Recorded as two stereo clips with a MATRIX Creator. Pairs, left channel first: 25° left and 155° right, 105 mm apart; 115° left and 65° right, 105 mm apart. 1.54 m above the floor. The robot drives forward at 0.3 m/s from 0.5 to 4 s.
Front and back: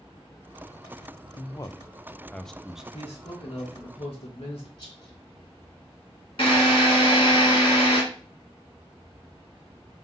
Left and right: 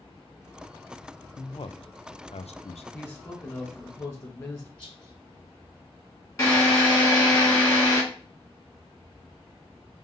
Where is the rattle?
70° left, 3.5 m.